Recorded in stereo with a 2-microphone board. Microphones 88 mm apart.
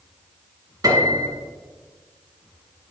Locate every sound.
0.8 s a piano: 40° right (ahead or behind), 1.7 m